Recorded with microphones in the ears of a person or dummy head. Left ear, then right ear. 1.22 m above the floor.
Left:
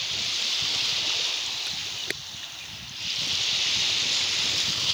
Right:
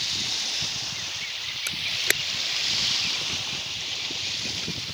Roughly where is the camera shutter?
Right.